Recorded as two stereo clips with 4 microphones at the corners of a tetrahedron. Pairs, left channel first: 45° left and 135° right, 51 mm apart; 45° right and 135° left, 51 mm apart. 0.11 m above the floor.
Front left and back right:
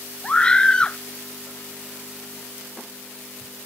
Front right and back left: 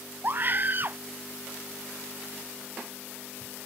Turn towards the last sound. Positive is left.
turn(degrees=110)